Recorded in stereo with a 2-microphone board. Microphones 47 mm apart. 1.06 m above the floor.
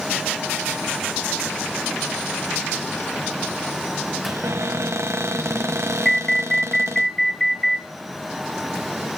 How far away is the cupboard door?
About 0.8 m.